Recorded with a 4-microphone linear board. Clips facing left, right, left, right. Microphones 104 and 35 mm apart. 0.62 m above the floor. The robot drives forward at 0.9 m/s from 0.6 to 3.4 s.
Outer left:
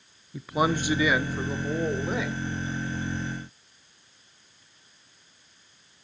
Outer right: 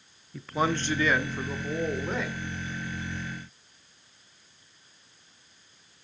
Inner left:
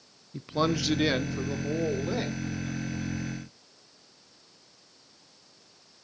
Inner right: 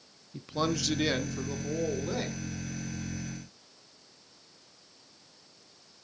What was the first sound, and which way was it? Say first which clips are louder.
A man speaking: outer left 2 dB, inner left 3 dB; 10° left (ahead or behind).